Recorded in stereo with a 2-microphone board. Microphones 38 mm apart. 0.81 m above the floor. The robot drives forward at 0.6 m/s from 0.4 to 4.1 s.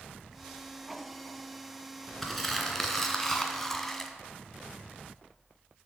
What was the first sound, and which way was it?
Crumpling, 5° left (ahead or behind).